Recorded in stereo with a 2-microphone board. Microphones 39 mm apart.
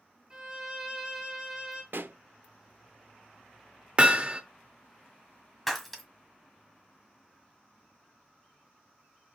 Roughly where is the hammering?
Right.